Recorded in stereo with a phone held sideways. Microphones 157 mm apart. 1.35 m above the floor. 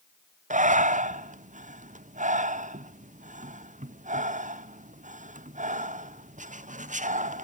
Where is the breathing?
55° right (ahead or behind), 0.7 m.